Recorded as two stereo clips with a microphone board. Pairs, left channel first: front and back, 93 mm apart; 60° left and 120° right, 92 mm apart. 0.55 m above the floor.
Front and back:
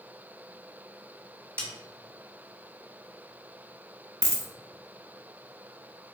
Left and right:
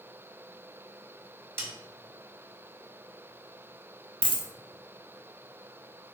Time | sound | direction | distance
1.6 | a snare drum | 60° right | 1.1 m
4.2 | a dropped coin | 125° right | 0.8 m